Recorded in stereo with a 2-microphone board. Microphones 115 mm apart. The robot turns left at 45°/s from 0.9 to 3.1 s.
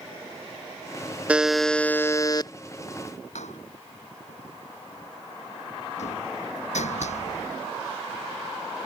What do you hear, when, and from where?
1.3 s a buzzer: 170° right; by 2.5 s 135° left
3.4 s a door slam: 85° left